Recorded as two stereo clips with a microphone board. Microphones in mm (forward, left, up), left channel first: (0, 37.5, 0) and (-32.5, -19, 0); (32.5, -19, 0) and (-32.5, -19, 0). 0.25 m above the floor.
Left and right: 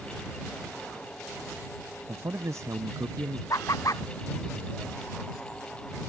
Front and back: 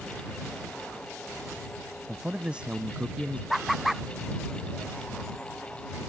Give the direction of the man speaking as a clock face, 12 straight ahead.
4 o'clock.